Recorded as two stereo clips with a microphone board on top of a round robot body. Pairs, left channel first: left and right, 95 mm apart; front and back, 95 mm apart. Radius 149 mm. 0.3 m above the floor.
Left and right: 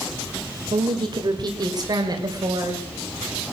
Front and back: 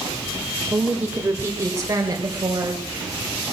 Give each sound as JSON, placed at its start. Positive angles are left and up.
{"t": 0.7, "sound": "a woman speaking", "azimuth_deg": -110, "distance_m": 1.7}